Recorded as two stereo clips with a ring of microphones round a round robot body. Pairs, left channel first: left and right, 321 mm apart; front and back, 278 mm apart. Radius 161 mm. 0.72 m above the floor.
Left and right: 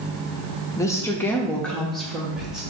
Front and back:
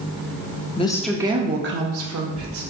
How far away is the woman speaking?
About 0.5 m.